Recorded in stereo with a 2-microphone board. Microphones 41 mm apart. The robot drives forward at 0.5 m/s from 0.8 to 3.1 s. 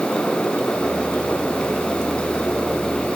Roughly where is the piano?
No piano in this recording.